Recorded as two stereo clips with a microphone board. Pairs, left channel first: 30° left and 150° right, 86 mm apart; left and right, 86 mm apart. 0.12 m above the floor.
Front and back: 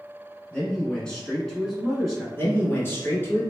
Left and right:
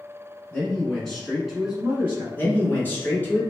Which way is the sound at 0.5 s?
65° left.